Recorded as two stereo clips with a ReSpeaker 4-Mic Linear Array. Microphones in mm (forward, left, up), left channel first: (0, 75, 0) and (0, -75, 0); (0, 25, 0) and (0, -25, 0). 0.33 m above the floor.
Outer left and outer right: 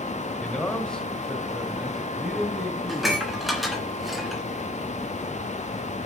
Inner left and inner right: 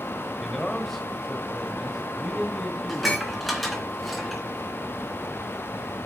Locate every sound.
0.4 s a man speaking: 10° left (ahead or behind), 1.7 m; by 3.2 s centre (ahead or behind), 3.5 m
2.9 s dishes clattering: centre (ahead or behind), 2.5 m